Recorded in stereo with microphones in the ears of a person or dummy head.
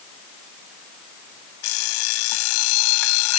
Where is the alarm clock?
80° left.